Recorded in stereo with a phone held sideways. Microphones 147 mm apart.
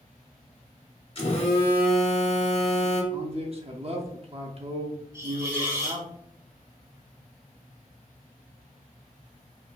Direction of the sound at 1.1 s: 40° left (ahead or behind).